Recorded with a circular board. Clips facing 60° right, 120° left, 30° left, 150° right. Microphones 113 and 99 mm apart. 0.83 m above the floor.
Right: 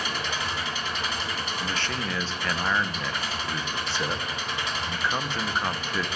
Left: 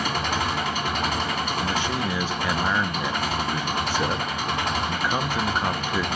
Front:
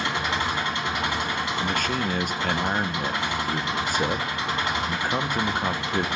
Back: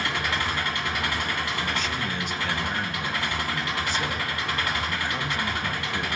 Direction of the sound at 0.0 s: 95° left.